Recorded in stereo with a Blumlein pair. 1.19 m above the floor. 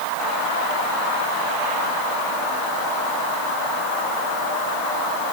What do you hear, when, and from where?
Only background noise.